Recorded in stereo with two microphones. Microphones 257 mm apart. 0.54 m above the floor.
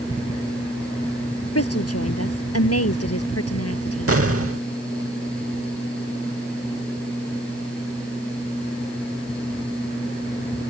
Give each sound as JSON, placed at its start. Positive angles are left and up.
{"t": 1.6, "sound": "a woman speaking", "side_deg": 65}
{"t": 4.1, "sound": "an explosion", "side_deg": -60}